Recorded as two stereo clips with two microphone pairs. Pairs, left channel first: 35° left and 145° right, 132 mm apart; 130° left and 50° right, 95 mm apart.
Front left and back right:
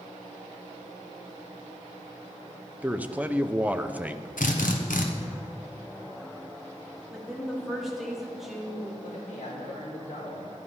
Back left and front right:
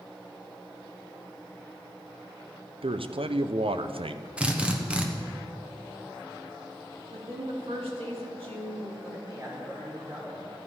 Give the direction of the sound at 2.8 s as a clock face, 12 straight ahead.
2 o'clock.